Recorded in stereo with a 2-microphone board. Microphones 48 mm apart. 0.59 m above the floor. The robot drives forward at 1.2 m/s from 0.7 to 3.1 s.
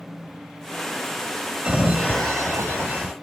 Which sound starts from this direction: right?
A sliding door, at 1.6 s.